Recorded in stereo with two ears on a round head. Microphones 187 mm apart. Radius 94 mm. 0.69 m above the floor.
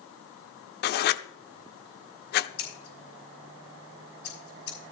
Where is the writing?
50° left (ahead or behind), 0.6 m.